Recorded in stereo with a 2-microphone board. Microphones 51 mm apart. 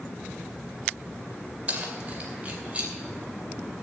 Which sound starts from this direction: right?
Keys jangling, at 1.7 s.